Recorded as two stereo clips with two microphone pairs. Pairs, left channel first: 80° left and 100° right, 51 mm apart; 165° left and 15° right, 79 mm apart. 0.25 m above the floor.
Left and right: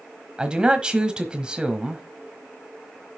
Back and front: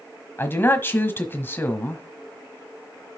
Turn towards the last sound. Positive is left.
turn(degrees=-160)